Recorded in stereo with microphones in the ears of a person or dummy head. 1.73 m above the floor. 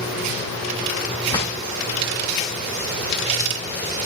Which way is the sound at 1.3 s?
25° left (ahead or behind).